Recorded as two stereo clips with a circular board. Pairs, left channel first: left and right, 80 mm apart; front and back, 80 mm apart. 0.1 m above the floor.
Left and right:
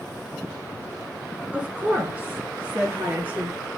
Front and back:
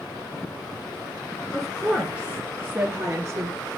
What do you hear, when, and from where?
1.5 s a woman speaking: 85° right, 1.4 m; by 3.6 s 150° right, 1.9 m